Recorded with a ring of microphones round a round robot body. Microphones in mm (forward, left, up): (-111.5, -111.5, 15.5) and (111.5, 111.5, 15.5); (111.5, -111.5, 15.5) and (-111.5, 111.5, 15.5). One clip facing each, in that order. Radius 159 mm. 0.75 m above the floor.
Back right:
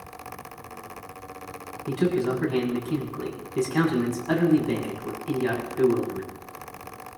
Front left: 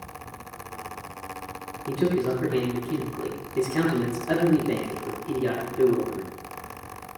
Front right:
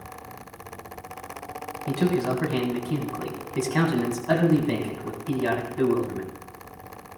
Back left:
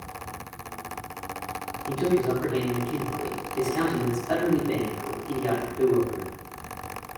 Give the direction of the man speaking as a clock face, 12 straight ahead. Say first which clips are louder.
Even, back left 1 dB; 2 o'clock.